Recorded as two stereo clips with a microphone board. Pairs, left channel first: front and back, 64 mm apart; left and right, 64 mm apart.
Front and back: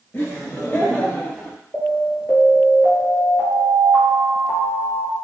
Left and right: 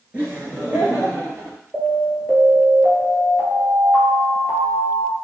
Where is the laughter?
40° right, 1.7 m; by 1.6 s 55° right, 2.5 m.